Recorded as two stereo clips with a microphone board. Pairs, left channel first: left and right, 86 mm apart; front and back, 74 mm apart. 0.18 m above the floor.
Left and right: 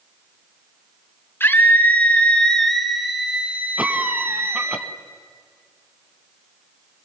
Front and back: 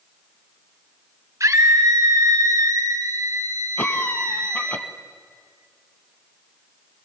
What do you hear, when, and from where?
1.4 s a scream: 150° left, 2 m; by 4.8 s 135° right, 2 m
3.8 s a cough: 30° right, 1.4 m